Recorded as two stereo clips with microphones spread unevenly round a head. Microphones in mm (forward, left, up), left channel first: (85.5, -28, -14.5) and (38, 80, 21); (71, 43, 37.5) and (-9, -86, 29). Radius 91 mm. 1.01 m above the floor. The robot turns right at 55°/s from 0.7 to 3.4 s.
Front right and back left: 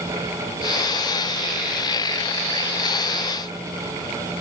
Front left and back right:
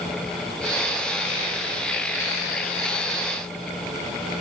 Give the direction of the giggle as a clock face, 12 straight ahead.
No giggle in this recording.